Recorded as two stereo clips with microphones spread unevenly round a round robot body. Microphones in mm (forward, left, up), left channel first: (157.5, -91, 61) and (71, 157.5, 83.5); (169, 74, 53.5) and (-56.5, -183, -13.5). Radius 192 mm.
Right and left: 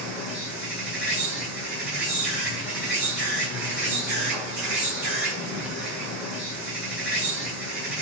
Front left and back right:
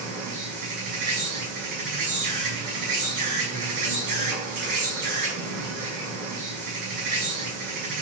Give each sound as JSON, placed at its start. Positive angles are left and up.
{"t": 0.0, "sound": "an insect", "azimuth_deg": -165, "distance_m": 4.5}